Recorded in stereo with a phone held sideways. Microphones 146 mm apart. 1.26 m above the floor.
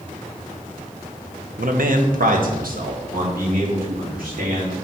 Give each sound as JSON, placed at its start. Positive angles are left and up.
{"t": 1.6, "sound": "a man speaking", "side_deg": -70, "distance_m": 0.9}